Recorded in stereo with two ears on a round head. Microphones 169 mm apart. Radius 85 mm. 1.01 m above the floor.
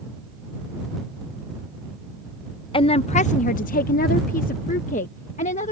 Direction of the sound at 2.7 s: 25° left (ahead or behind).